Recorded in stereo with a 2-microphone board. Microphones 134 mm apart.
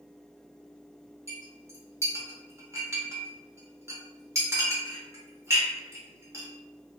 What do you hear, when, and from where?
1.3 s a clink: 20° right (ahead or behind), 0.7 m